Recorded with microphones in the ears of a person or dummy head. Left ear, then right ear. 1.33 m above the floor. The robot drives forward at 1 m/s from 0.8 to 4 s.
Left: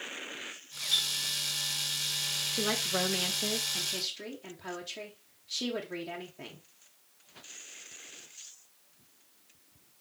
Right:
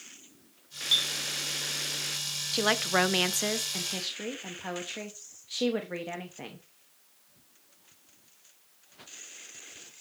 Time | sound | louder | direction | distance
0.9 | a clink | right 3 dB | 30° right (ahead or behind) | 2.5 m
2.5 | a woman speaking | right 8 dB | 35° right (ahead or behind) | 0.8 m